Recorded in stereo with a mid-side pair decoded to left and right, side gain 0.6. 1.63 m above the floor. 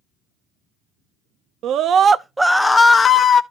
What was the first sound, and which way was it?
A scream, 60° right.